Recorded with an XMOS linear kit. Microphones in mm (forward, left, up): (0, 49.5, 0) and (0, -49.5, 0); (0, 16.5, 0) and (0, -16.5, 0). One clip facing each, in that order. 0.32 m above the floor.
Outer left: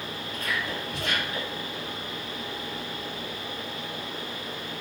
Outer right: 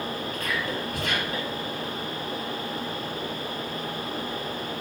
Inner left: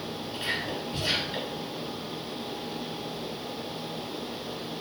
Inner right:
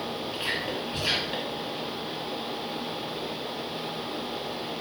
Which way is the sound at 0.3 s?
60° right (ahead or behind).